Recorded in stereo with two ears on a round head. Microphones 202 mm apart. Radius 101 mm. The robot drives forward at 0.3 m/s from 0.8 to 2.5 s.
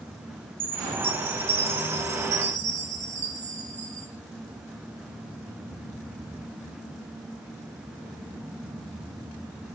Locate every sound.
0.6 s a chime: 25° right (ahead or behind), 1.6 m; by 4.1 s 35° right (ahead or behind), 1.2 m